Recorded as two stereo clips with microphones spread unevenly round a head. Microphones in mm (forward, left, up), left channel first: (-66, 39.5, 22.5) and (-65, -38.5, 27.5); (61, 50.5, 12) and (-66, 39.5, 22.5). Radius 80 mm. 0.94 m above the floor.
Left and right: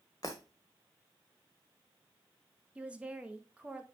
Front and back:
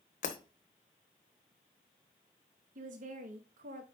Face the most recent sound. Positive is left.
turn(degrees=-165)